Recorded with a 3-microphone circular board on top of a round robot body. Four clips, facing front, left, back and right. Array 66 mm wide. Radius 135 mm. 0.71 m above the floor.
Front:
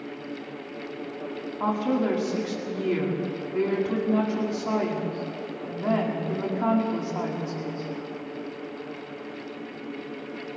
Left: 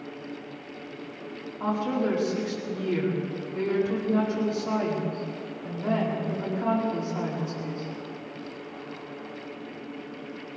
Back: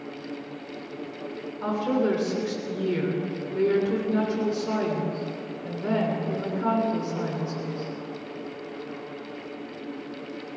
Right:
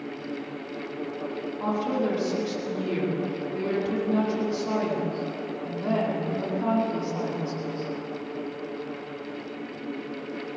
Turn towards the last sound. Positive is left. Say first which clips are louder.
# even, even
turn(degrees=-5)